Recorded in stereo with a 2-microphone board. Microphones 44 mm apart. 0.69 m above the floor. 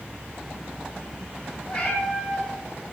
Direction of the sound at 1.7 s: 25° left (ahead or behind).